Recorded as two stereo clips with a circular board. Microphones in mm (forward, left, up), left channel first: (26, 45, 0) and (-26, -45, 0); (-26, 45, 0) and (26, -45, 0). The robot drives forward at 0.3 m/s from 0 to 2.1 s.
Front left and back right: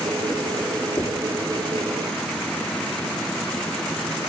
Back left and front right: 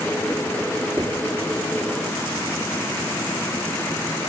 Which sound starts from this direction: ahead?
Knocking, at 1.0 s.